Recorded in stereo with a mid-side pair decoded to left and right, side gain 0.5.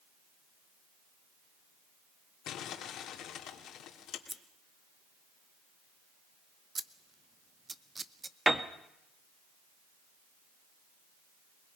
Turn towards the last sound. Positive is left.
turn(degrees=-10)